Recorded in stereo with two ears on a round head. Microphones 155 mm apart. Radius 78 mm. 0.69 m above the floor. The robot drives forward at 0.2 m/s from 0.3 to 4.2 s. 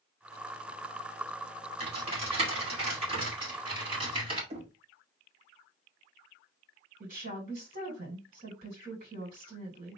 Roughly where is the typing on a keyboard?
Right.